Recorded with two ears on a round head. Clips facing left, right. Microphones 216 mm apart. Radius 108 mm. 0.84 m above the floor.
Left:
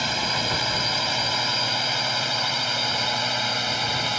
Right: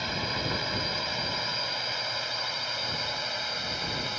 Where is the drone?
70° left (ahead or behind); by 4.2 s 75° left (ahead or behind).